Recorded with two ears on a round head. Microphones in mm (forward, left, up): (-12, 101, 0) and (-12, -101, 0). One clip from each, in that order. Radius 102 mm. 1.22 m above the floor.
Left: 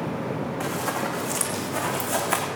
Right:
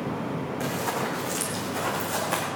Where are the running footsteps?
5° right (ahead or behind), 2.5 m; by 2.5 s 20° left (ahead or behind), 3.5 m.